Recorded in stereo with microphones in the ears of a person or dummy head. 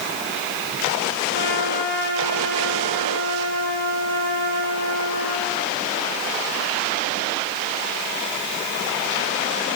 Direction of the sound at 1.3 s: 45° left (ahead or behind).